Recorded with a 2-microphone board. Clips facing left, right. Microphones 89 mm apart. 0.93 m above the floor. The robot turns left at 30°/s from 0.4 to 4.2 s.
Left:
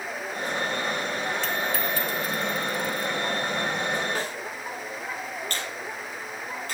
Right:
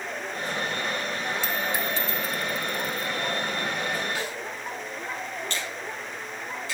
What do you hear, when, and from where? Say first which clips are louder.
1.4 s a dropped coin: left 1 dB; 10° right (ahead or behind), 2.5 m; by 3.1 s 55° right (ahead or behind), 2.5 m
4.2 s a snare drum: left 1 dB; 45° left (ahead or behind), 3 m; by 4.4 s 40° left (ahead or behind), 3 m
5.5 s a finger snap: even; 45° left (ahead or behind), 5.5 m